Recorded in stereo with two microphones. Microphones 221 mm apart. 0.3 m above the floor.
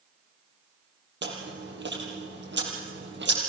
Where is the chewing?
55° right (ahead or behind), 5 m.